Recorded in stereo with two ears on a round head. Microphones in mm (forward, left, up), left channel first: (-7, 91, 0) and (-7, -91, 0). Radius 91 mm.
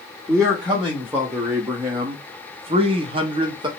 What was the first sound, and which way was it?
A man speaking, centre (ahead or behind).